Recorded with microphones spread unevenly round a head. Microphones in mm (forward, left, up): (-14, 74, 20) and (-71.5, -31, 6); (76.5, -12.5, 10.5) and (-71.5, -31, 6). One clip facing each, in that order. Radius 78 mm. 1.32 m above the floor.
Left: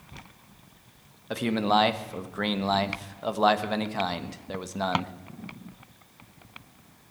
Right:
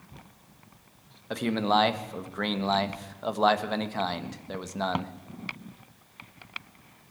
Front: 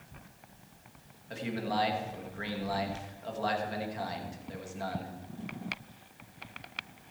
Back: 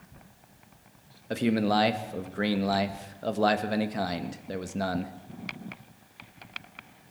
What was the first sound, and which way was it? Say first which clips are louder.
A man speaking: left 1 dB, back 9 dB; 150° left.